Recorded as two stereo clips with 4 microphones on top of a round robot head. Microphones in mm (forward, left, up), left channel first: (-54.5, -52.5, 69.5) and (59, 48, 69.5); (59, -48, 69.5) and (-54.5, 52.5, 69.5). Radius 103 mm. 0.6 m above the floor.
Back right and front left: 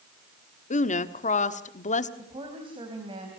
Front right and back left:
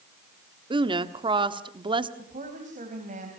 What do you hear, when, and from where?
0.7 s a woman speaking: 170° right, 1.4 m
2.2 s a woman speaking: 100° left, 3.5 m